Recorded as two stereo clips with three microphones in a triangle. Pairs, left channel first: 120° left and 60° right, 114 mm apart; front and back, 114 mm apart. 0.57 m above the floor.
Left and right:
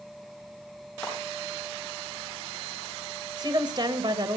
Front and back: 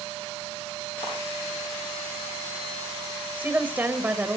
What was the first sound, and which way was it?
A clap, 35° left.